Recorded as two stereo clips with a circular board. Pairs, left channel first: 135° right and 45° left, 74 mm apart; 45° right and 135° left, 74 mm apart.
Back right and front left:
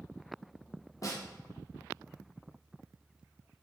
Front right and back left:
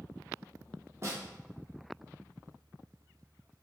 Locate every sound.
1.0 s a snare drum: 175° right, 0.9 m